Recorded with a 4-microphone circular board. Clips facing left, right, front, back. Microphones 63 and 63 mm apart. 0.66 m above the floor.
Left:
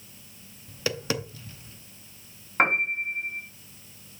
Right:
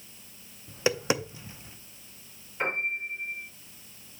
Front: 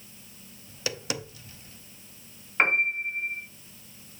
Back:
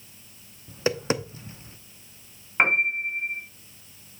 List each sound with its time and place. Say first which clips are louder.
0.7 s tapping: right 3 dB, back 9 dB; 150° right, 0.8 m
2.6 s a piano: left 7 dB, back 2 dB; 100° left, 3 m